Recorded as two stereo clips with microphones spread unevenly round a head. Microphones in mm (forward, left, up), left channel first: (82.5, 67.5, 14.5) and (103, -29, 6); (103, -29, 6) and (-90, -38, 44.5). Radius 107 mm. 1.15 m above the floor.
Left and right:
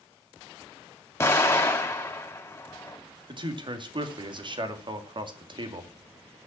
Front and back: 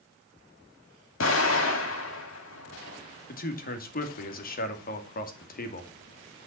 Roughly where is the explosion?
Ahead left.